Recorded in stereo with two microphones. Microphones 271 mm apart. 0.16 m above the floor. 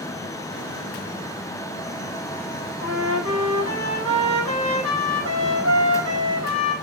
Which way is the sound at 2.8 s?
50° right (ahead or behind).